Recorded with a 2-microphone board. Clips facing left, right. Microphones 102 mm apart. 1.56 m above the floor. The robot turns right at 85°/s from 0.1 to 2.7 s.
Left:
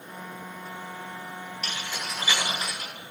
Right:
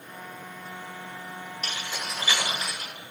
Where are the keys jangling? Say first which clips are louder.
Right 1 dB; 40° right (ahead or behind), 4 m; by 2.9 s 50° left (ahead or behind), 4 m.